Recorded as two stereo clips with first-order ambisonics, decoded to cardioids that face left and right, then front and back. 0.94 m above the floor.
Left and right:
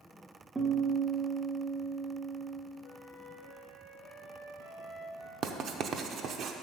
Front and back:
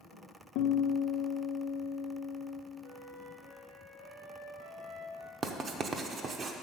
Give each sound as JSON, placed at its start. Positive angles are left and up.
{"t": 0.6, "sound": "a guitar", "azimuth_deg": -10, "distance_m": 1.0}
{"t": 2.8, "sound": "a flute", "azimuth_deg": 175, "distance_m": 3.0}
{"t": 5.4, "sound": "writing", "azimuth_deg": -125, "distance_m": 0.6}